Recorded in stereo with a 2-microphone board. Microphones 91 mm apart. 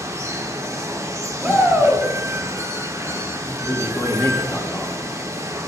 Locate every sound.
0.0 s running water: 30° right (ahead or behind), 1.1 m
1.4 s a shout: 15° right (ahead or behind), 2.5 m
3.4 s a man speaking: 25° left (ahead or behind), 2.0 m